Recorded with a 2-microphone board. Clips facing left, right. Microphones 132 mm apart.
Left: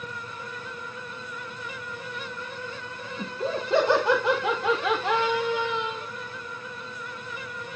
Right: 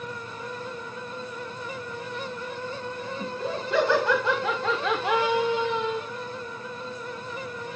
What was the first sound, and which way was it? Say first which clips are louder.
Laughter: left 3 dB; 30° left (ahead or behind).